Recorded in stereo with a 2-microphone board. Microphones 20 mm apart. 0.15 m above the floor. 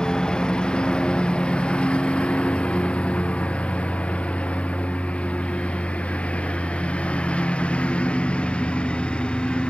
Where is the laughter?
I don't hear laughter.